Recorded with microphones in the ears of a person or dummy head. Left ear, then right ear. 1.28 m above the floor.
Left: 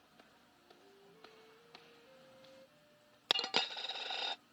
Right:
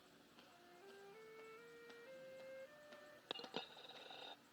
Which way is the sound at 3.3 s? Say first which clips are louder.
Left 16 dB; 45° left (ahead or behind).